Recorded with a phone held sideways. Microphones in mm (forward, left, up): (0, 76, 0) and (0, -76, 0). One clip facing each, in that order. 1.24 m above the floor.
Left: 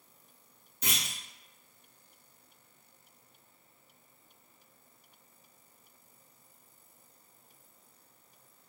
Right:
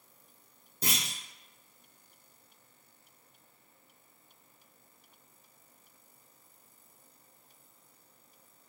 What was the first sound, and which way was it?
A clunk, 35° right (ahead or behind).